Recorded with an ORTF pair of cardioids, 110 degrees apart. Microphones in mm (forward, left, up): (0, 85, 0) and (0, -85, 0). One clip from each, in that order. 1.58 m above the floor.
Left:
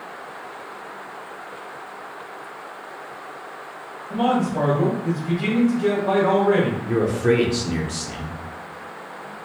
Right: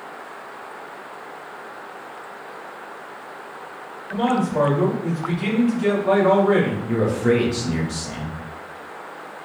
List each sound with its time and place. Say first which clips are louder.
4.1 s a man speaking: even; 5° left, 2.5 m
6.9 s a man speaking: even; 10° left, 1.4 m